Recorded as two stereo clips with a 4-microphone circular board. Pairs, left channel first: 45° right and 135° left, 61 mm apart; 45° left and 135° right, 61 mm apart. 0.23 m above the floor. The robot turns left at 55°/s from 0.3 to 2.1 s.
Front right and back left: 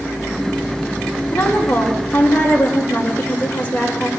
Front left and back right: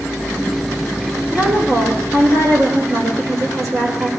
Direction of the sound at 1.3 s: 65° right.